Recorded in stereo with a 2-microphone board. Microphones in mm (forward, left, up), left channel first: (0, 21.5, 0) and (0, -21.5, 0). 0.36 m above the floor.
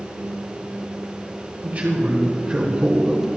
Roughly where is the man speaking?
Right.